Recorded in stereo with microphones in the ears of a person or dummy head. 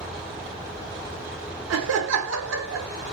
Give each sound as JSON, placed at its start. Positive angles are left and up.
{"t": 1.7, "sound": "laughter", "side_deg": -70, "distance_m": 1.0}